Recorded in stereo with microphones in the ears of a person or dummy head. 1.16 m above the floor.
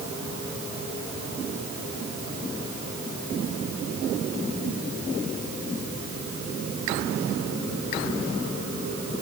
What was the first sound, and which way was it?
Only background noise.